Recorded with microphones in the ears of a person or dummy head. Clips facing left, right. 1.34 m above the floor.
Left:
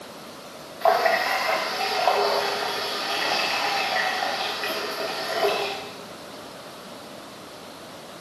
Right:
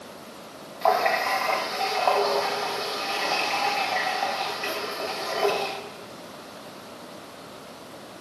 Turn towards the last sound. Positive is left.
turn(degrees=5)  # may be behind; listen again after turning